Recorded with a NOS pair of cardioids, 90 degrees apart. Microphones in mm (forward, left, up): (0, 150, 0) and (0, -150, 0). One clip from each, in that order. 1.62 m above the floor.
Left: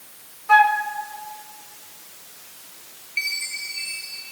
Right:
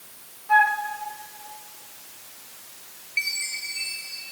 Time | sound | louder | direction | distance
0.5 | a flute | left 4 dB | 55° left | 2 m
3.2 | a chime | left 1 dB | 5° right | 8.5 m